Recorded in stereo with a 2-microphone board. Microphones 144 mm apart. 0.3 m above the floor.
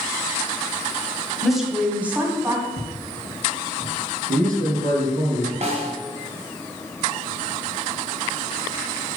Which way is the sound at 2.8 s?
40° left (ahead or behind).